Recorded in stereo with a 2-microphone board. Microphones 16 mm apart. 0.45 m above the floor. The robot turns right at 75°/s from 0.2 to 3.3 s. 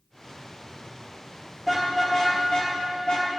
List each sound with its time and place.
1.6 s a car horn: 5° right (ahead or behind), 6 m; by 3.3 s 65° left (ahead or behind), 6 m